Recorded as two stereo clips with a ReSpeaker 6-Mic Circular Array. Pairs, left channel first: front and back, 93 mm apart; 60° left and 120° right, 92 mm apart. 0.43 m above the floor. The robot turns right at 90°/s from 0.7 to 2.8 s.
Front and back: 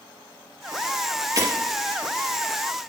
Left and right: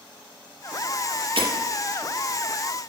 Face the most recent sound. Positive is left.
turn(degrees=-5)